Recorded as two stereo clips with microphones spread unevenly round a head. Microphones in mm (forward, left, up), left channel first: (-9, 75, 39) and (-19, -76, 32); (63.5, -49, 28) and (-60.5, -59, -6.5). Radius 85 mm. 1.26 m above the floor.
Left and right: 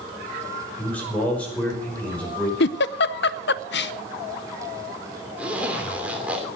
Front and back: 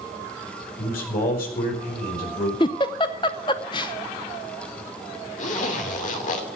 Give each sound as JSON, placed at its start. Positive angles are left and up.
{"t": 0.8, "sound": "a man speaking", "azimuth_deg": 5, "distance_m": 5.0}
{"t": 2.6, "sound": "a giggle", "azimuth_deg": 70, "distance_m": 0.6}
{"t": 5.4, "sound": "a zipper", "azimuth_deg": -10, "distance_m": 2.5}